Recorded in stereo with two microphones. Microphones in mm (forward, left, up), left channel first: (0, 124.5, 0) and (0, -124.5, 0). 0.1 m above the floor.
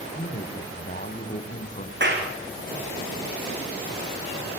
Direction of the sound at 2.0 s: 45° right (ahead or behind).